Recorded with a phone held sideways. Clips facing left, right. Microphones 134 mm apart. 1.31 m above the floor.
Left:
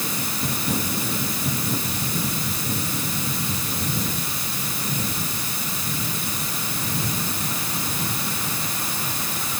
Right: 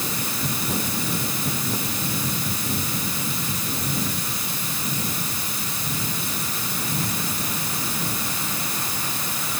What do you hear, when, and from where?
Only background noise.